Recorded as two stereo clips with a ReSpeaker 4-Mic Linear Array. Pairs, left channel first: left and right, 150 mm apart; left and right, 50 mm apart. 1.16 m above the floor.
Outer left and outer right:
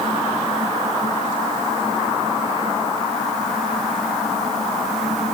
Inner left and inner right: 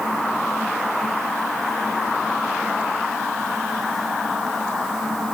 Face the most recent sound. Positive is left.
No sound to turn to.